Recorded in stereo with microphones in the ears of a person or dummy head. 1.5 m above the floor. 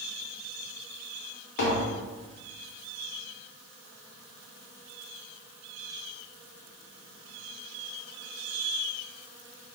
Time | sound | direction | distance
1.6 | tapping | 60° left (ahead or behind) | 0.8 m